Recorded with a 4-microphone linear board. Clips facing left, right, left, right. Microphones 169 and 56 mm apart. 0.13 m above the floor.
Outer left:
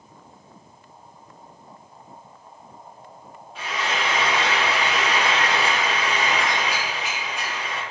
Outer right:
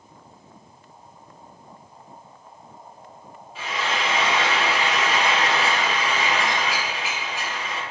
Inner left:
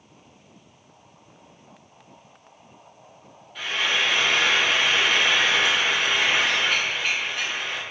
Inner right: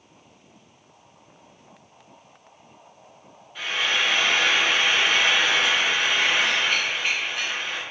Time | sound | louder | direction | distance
3.5 | frying | even, even | 5° right (ahead or behind) | 1.5 m